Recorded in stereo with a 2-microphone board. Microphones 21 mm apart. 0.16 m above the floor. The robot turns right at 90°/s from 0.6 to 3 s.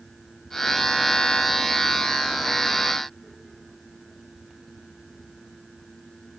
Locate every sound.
Only background noise.